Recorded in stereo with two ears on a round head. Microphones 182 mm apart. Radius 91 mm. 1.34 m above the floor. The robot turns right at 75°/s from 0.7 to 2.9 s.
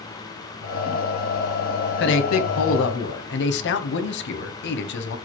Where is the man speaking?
50° left, 0.6 m; by 5.2 s 120° left, 0.6 m.